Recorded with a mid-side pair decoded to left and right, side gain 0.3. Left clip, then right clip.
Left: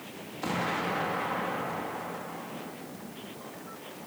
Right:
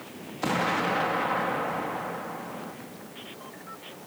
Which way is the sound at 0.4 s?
55° right.